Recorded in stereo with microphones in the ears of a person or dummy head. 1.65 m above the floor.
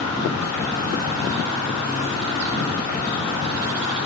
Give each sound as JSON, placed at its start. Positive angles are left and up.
{"t": 0.0, "sound": "an insect", "side_deg": -20, "distance_m": 1.4}